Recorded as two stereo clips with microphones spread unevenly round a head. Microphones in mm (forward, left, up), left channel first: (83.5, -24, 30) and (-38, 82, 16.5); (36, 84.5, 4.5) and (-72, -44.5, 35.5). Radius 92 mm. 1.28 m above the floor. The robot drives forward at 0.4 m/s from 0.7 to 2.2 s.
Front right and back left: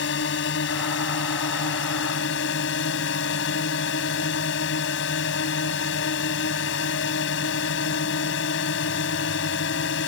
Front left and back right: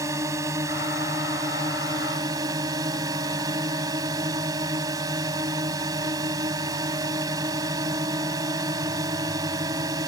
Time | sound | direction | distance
0.0 | a drone | 55° right | ?